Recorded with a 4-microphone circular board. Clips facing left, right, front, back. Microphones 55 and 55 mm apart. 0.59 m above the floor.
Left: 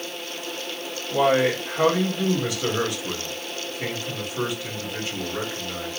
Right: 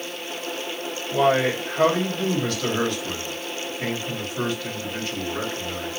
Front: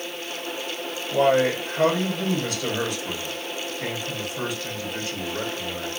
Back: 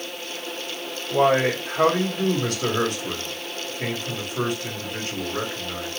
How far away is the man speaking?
About 2 m.